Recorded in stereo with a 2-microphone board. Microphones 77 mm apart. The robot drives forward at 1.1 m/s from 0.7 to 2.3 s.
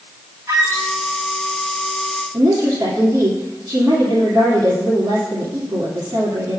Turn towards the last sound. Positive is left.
turn(degrees=-60)  # may be behind; listen again after turning